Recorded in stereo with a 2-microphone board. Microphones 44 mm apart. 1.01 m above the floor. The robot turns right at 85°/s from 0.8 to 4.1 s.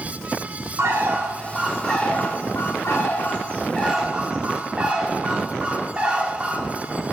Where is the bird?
80° right, 1.8 m; by 7.1 s 160° right, 1.8 m.